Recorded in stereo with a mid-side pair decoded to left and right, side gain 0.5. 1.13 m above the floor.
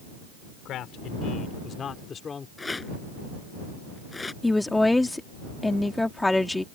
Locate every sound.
0.7 s a man speaking: 70° left; by 2.5 s 35° left
2.6 s a rattle: 20° left
4.4 s a woman speaking: 10° left